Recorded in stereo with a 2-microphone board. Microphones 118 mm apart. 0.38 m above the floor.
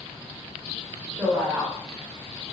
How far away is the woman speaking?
About 0.9 m.